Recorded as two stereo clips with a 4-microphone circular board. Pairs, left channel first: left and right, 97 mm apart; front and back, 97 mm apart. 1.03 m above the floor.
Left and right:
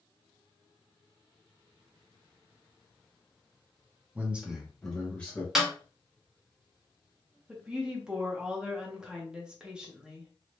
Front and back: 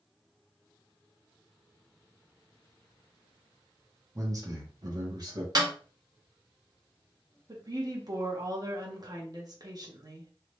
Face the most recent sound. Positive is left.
turn(degrees=-165)